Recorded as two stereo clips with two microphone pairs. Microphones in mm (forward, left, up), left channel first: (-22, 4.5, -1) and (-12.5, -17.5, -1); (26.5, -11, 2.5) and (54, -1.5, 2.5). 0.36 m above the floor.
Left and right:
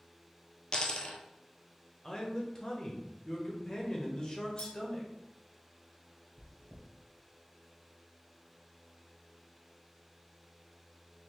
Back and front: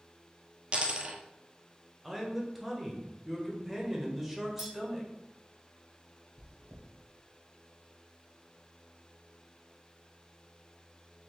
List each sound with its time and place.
0.7 s a dropped coin: 65° left, 0.9 m
2.0 s a man speaking: 100° left, 1.2 m
4.6 s a clink: 85° left, 2.0 m
6.4 s chewing: 55° left, 1.0 m